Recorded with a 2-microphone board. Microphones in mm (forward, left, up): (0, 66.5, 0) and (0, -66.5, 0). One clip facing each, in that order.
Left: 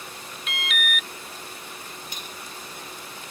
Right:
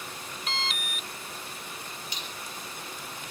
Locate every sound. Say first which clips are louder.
0.5 s an alarm: left 4 dB; 30° right (ahead or behind)
2.1 s cutlery clinking: left 1 dB; 50° left (ahead or behind)